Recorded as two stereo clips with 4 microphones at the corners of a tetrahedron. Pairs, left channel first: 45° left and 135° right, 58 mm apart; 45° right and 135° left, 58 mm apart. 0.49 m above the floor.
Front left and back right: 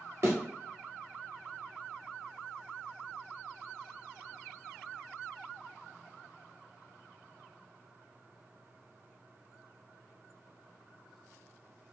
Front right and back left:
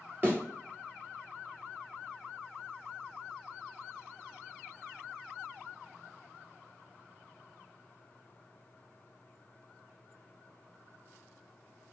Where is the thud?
170° right, 1.6 m.